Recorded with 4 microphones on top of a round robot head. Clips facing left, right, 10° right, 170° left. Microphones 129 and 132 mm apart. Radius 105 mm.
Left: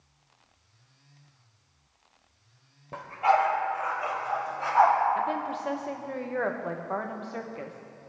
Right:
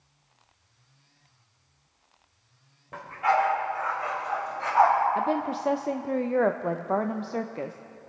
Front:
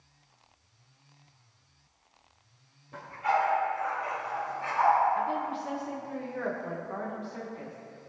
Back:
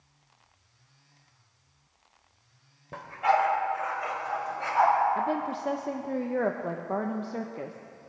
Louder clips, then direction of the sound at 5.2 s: Right 3 dB, back 2 dB; 145° right.